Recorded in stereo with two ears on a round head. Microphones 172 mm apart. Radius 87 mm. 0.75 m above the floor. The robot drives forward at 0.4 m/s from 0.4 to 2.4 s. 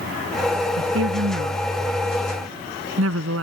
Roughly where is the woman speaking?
Right.